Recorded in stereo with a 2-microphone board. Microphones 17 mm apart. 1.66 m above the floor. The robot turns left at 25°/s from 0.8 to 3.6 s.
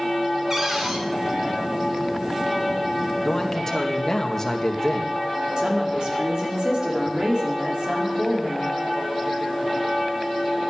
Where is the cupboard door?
40° right (ahead or behind), 3.5 m; by 1.0 s 45° right (ahead or behind), 3.5 m.